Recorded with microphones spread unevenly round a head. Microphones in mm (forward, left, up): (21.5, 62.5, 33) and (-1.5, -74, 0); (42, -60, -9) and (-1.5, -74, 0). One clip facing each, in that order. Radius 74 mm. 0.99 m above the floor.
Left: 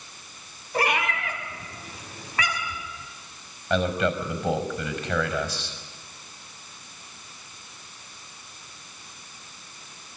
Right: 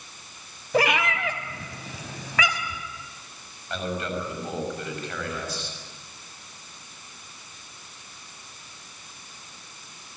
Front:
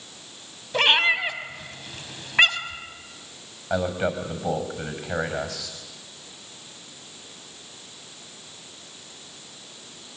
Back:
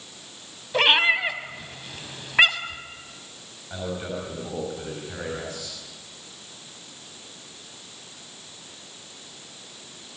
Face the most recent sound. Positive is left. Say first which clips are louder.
# left 6 dB, front 7 dB
turn(degrees=55)